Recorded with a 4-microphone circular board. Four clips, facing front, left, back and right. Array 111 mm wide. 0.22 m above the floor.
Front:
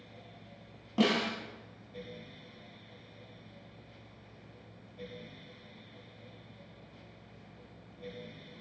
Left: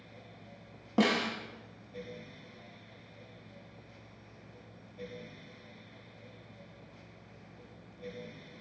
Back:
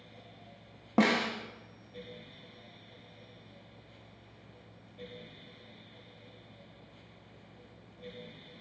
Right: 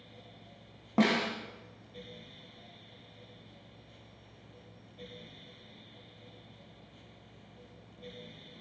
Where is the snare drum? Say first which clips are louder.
Right 1 dB, back 2 dB; 165° right, 0.8 m.